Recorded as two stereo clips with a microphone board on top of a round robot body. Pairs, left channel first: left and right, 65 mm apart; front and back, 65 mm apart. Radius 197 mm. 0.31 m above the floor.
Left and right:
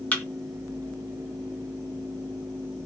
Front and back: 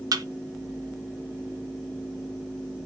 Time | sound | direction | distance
0.1 | a thud | 155° left | 1.5 m